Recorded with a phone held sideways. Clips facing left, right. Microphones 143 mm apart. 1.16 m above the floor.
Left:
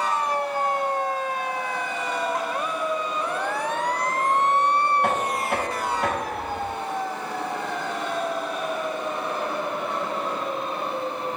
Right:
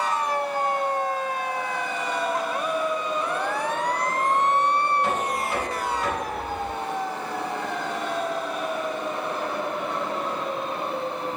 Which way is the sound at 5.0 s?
65° left (ahead or behind).